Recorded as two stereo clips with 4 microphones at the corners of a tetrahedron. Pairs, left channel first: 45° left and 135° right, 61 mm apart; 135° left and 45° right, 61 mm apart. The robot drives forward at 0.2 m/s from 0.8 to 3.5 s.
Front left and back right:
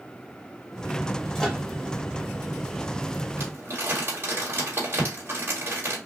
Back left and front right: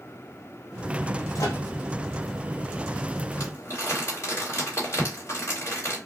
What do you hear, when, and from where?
1.4 s a microwave: 125° left, 1.0 m; by 1.6 s 130° left, 1.0 m
3.4 s crumpling: 175° left, 2.5 m